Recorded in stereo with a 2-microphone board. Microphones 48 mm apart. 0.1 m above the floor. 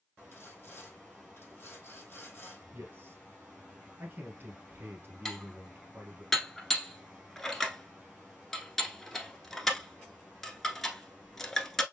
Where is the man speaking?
40° right (ahead or behind), 2.5 m.